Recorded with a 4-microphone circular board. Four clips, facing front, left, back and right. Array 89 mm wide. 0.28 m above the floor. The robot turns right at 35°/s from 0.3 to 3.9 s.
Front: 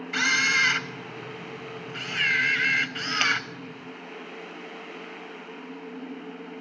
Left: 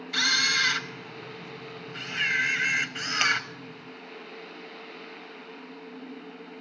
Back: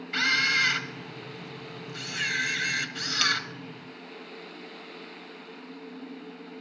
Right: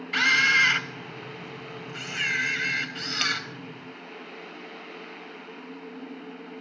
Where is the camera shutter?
70° right, 1.3 m; by 3.4 s 40° left, 1.3 m.